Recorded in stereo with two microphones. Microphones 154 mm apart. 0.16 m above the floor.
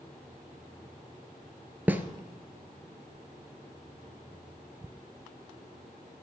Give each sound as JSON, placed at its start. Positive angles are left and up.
{"t": 1.9, "sound": "a snare drum", "side_deg": -10, "distance_m": 0.9}